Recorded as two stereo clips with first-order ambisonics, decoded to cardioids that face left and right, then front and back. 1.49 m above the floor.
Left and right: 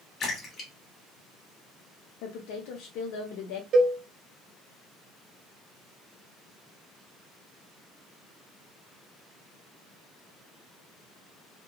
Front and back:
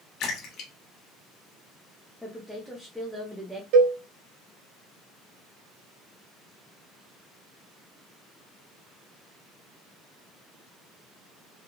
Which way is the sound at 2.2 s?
90° left.